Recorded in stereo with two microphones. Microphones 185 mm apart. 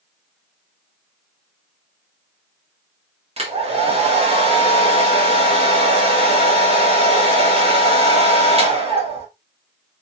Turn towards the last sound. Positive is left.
turn(degrees=-30)  # may be behind; listen again after turning